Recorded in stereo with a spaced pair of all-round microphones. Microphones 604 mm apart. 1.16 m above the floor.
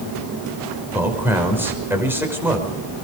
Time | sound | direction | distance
0.9 | a man speaking | 5° right (ahead or behind) | 5.5 m